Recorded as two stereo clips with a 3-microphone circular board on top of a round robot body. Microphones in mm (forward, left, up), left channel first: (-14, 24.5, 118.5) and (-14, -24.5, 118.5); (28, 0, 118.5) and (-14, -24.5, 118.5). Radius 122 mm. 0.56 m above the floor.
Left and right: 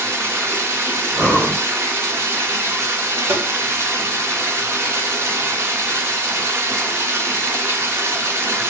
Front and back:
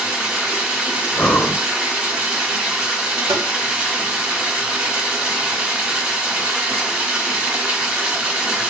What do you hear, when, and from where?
0.0 s running water: 80° right, 1.8 m
1.1 s breathing: 35° right, 1.4 m
3.3 s tapping: 130° right, 0.5 m